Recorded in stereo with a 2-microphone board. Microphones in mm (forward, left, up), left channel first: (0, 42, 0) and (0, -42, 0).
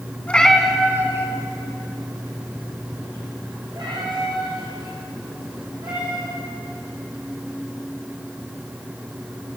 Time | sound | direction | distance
0.3 | a cat meowing | 15° left (ahead or behind) | 0.7 m